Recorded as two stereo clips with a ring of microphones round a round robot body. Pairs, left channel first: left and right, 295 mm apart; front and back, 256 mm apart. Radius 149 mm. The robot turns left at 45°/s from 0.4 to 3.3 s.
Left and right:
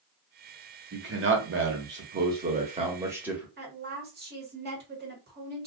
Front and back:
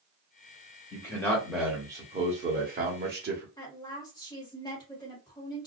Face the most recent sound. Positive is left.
turn(degrees=-70)